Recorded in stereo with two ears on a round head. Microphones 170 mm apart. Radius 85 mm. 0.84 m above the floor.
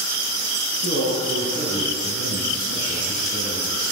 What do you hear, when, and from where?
0.8 s a man speaking: 55° left (ahead or behind), 5.5 m